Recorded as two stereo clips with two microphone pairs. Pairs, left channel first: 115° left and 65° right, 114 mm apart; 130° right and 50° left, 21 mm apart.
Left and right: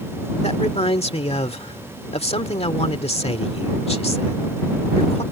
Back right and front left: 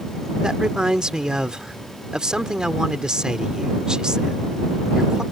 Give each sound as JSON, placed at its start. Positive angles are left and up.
{"t": 0.4, "sound": "a man speaking", "azimuth_deg": 100}